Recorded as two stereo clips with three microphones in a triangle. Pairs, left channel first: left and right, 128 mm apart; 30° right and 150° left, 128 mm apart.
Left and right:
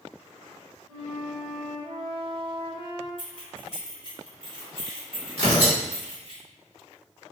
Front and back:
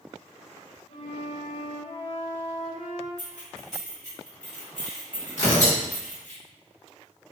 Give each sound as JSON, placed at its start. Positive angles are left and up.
{"t": 0.9, "sound": "a flute", "azimuth_deg": -35, "distance_m": 1.3}
{"t": 3.2, "sound": "keys jangling", "azimuth_deg": -45, "distance_m": 1.5}
{"t": 5.4, "sound": "tearing paper", "azimuth_deg": -50, "distance_m": 1.5}